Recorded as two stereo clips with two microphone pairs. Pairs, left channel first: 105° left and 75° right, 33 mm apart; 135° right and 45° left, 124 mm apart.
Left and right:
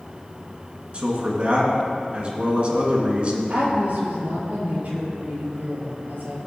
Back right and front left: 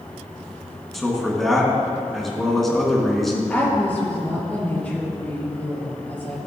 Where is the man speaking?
50° right, 1.8 m.